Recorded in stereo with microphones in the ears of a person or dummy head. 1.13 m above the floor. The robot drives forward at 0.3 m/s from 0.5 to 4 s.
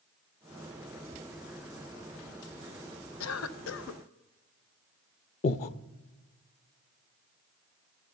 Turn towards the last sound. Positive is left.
turn(degrees=40)  # may be behind; listen again after turning